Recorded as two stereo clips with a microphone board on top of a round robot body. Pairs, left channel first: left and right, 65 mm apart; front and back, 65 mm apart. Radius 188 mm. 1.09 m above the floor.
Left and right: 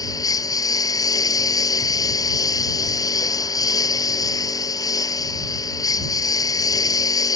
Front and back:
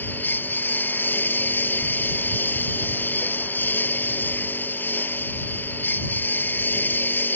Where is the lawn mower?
65° left.